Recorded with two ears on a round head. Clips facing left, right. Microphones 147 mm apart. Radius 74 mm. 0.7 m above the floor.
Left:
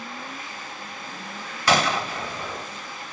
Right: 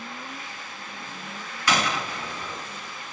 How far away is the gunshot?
About 0.7 m.